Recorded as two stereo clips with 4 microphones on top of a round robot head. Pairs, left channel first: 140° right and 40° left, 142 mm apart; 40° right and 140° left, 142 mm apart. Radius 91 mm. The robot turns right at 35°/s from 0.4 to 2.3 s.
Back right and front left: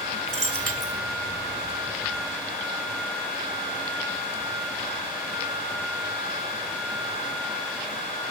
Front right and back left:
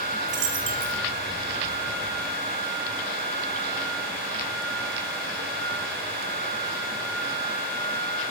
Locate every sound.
0.3 s a dropped coin: 80° left, 1.3 m; by 1.0 s 100° left, 1.3 m